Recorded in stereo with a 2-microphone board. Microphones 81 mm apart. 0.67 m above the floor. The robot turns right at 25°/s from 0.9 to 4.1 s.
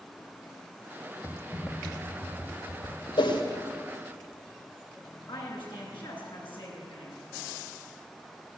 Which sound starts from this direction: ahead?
Typing on a keyboard, at 1.2 s.